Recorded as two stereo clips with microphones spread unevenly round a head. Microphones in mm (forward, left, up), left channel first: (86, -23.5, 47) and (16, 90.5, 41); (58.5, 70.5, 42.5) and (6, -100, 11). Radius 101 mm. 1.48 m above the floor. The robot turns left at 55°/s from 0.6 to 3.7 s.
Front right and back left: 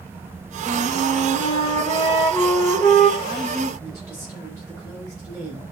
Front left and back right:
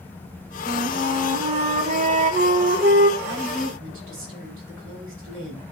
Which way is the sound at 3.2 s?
100° right.